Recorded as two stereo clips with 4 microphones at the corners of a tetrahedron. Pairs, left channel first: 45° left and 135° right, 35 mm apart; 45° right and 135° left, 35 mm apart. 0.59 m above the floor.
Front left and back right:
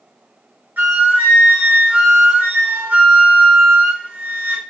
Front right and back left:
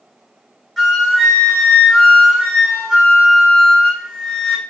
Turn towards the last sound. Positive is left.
turn(degrees=-135)